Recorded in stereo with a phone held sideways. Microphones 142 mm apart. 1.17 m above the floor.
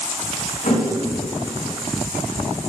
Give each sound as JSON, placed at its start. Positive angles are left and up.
{"t": 0.6, "sound": "a thud", "side_deg": 65, "distance_m": 2.0}